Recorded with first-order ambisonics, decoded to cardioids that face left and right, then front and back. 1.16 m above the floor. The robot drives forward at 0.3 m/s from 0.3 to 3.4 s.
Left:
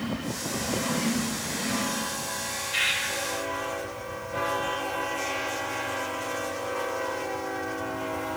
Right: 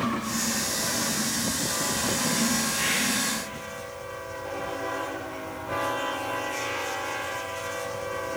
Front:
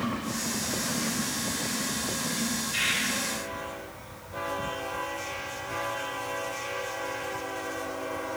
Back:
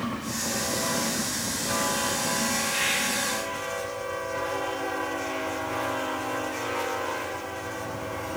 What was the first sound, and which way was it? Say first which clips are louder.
A bird: left 6 dB, front 1 dB; 80° left.